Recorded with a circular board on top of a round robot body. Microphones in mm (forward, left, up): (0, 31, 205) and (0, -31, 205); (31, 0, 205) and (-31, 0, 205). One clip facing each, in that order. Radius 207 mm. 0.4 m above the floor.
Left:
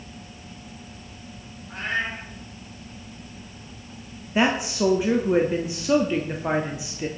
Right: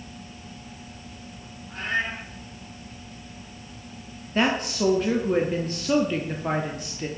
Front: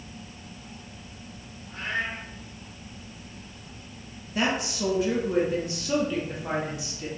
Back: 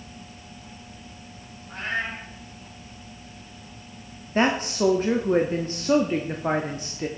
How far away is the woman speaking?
About 1.2 m.